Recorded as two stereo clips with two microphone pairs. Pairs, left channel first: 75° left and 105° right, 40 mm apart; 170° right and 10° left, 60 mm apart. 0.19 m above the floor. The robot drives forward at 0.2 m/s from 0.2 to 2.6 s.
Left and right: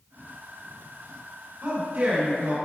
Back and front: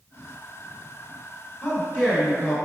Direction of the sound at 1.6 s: 120° right.